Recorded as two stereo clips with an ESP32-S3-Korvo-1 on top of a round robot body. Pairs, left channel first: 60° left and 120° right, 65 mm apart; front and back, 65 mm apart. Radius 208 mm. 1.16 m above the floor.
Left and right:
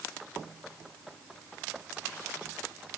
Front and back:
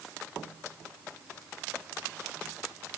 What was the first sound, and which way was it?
Only background noise.